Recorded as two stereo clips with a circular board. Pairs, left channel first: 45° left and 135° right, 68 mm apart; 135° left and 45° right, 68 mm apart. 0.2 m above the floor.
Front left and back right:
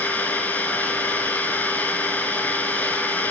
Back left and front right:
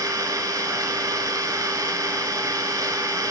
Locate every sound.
0.0 s an engine running: 20° right, 0.7 m